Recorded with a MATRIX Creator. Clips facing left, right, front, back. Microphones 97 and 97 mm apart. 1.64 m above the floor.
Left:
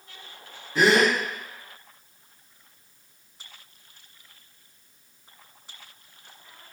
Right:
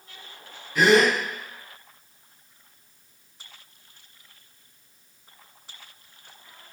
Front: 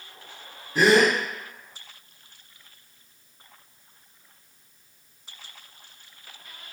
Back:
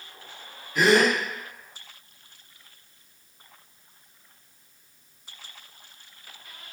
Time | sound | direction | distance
0.8 | a gasp | 40° left | 0.9 m